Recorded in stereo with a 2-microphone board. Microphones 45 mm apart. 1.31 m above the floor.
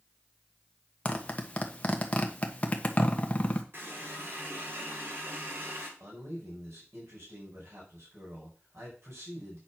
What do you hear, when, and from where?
1.1 s a zipper: 30° left (ahead or behind), 1.2 m
3.7 s a running tap: 55° right (ahead or behind), 2.5 m
6.0 s a man speaking: 80° right, 5 m